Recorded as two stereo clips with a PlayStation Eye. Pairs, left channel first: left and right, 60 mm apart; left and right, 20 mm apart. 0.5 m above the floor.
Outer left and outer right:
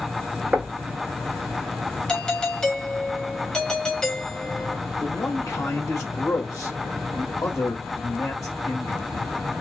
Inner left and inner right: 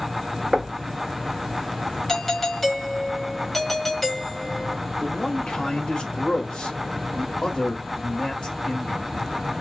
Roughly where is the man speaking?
Left.